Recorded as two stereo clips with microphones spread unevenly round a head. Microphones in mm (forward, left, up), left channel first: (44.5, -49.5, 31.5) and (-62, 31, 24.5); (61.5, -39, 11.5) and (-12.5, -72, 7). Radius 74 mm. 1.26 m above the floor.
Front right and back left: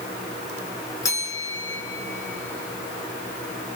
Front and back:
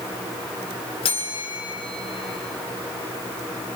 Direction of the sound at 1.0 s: 30° left.